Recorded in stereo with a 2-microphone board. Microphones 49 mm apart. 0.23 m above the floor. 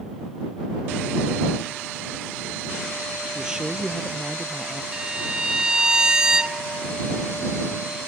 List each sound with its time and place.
3.4 s a man speaking: 15° right (ahead or behind); by 4.8 s 5° right (ahead or behind)
4.9 s a violin: 15° right (ahead or behind)